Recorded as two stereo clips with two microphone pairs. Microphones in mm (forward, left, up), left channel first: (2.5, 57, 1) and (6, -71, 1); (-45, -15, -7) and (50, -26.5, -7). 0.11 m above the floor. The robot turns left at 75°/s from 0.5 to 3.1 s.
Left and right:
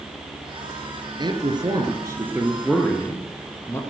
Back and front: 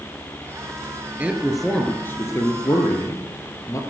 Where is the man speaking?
70° right, 2 m; by 3.8 s 145° left, 2 m.